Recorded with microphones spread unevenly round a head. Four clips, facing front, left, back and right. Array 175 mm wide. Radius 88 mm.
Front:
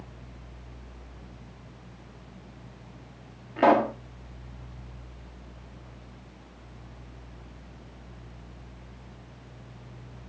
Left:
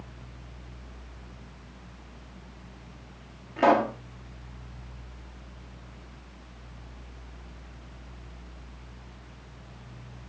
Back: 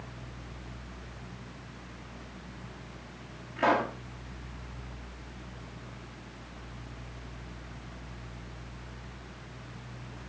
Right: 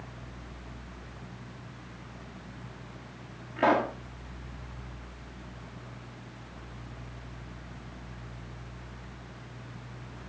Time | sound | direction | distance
3.6 | a pop | 25° left | 1.4 m